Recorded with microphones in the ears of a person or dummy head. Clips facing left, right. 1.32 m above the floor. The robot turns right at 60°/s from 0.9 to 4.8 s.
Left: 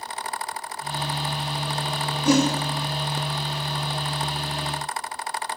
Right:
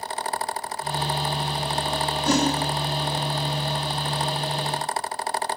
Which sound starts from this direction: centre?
A whoosh, at 2.2 s.